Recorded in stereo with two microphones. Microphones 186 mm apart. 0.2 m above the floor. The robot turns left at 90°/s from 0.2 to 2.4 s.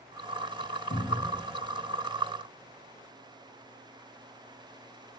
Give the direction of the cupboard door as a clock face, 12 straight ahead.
10 o'clock.